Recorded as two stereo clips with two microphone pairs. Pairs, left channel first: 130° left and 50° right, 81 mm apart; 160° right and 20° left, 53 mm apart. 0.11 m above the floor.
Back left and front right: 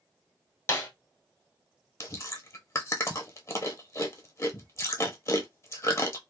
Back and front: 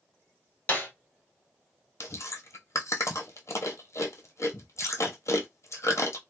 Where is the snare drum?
160° left, 0.9 m.